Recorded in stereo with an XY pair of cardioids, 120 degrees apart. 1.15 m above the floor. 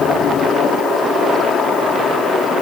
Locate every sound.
Only background noise.